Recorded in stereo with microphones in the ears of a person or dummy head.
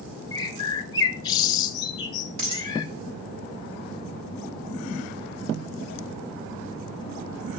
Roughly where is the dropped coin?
Right.